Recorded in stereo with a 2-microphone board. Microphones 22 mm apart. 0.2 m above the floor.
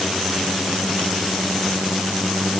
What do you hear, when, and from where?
Only background noise.